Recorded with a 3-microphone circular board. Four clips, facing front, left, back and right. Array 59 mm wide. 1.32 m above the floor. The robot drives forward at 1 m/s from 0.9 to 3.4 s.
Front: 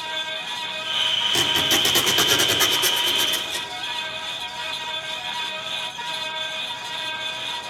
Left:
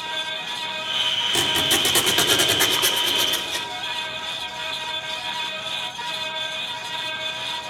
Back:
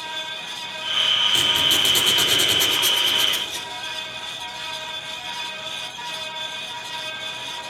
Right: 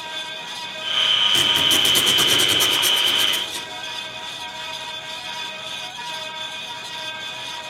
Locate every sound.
1.3 s a squeak: 45° left, 4.5 m; by 3.7 s 70° left, 3.5 m